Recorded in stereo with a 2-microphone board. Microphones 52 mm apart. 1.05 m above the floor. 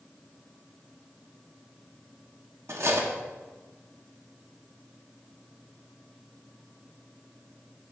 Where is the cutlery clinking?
60° right (ahead or behind), 0.9 m.